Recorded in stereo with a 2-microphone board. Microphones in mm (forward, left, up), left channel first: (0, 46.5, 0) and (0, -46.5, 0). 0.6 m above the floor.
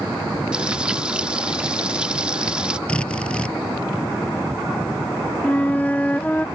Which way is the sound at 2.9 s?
10° left (ahead or behind).